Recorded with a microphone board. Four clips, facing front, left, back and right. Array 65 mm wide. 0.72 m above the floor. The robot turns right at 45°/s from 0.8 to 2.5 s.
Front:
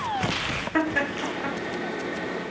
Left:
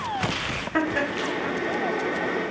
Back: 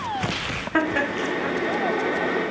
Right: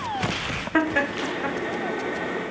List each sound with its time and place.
0.7 s laughter: 135° right, 0.6 m; by 1.6 s 100° right, 0.6 m